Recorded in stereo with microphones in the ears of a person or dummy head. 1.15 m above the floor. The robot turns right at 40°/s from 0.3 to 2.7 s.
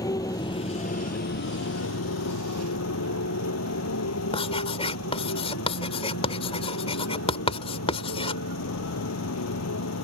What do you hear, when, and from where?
0.0 s a motorcycle: 20° left; by 10.0 s 115° left
4.3 s writing: 20° left (ahead or behind)